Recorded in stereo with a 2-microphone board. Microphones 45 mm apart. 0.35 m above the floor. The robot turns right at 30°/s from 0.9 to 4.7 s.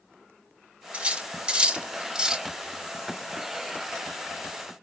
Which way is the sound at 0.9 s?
30° right (ahead or behind).